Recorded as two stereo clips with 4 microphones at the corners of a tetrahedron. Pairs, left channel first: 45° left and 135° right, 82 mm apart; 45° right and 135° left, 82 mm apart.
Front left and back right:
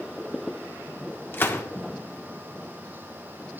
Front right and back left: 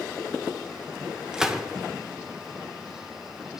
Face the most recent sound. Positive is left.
turn(degrees=60)